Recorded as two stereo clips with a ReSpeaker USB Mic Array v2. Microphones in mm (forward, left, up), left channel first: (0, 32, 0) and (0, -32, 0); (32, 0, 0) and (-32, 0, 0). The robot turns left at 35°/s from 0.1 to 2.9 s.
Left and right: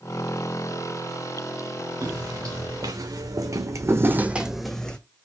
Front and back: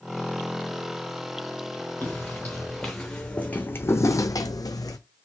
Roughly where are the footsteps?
Ahead right.